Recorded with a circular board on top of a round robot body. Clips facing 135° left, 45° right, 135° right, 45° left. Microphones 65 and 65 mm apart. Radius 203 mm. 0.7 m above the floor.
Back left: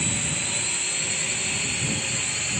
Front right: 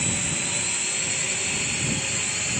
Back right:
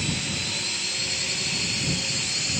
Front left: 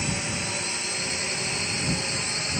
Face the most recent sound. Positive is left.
turn(degrees=40)